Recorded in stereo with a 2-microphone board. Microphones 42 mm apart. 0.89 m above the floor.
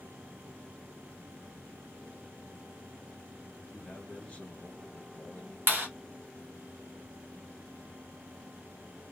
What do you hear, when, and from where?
3.7 s a man speaking: 30° left (ahead or behind), 1.2 m
5.7 s a clap: 50° right (ahead or behind), 1.5 m